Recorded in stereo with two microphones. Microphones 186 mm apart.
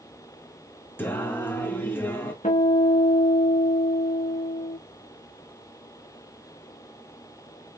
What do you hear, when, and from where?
1.0 s singing: 10° left (ahead or behind), 1.7 m
2.4 s a guitar: 40° left (ahead or behind), 3.5 m